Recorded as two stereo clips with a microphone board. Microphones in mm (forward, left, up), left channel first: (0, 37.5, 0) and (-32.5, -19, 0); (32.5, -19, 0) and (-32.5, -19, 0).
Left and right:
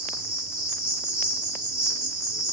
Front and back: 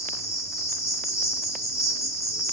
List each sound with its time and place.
0.0 s an insect: 45° right, 1.5 m